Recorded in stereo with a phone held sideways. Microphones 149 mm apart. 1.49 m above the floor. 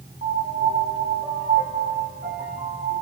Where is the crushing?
I don't hear crushing.